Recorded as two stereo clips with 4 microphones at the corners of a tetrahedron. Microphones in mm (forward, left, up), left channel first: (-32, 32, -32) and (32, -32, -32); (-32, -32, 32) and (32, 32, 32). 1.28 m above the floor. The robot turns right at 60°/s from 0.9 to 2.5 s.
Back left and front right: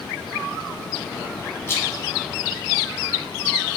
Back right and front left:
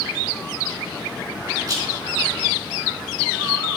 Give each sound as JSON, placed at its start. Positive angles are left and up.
{"t": 1.7, "sound": "a rattle", "azimuth_deg": 80, "distance_m": 1.7}